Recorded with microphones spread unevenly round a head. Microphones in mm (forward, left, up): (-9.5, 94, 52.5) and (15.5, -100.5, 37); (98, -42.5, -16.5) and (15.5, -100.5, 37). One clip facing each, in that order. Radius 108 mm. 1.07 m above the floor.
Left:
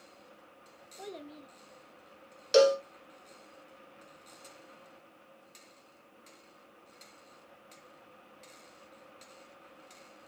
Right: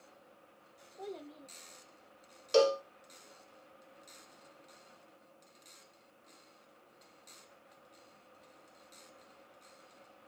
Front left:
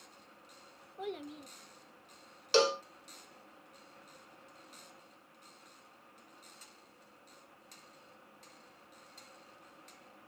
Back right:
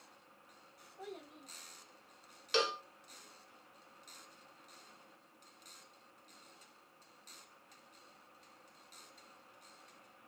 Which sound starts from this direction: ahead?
A cowbell, at 2.5 s.